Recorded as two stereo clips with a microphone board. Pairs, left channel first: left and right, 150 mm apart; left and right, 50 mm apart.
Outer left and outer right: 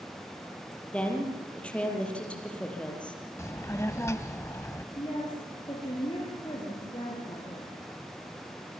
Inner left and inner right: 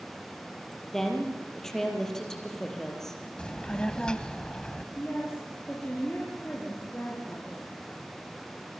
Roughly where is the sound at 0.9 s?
Centre.